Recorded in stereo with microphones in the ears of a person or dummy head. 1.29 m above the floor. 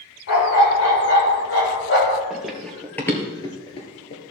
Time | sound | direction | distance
0.3 | a dog barking | 70° left (ahead or behind) | 4 m
2.3 | running footsteps | 5° right (ahead or behind) | 1.8 m